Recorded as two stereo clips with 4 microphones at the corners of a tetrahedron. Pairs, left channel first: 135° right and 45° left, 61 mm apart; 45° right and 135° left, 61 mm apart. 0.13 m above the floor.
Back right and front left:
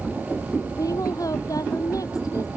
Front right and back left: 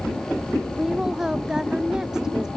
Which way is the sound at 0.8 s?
145° right.